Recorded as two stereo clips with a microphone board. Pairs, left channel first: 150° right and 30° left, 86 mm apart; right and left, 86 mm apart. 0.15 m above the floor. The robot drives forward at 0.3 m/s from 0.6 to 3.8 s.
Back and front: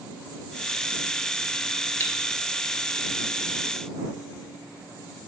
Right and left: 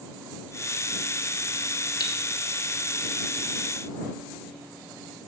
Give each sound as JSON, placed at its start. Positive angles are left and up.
{"t": 2.0, "sound": "cutlery clinking", "azimuth_deg": -95, "distance_m": 1.6}